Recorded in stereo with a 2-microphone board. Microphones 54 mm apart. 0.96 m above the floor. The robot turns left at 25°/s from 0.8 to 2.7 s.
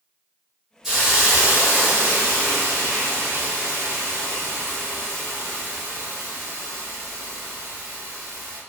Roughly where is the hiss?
Ahead.